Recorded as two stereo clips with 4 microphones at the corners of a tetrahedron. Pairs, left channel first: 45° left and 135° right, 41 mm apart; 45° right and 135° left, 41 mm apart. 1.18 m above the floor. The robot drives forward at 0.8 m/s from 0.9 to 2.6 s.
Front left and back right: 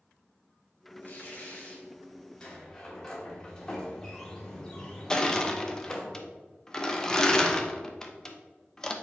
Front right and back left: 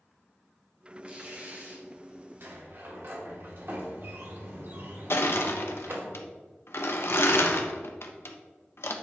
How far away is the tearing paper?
About 1.7 m.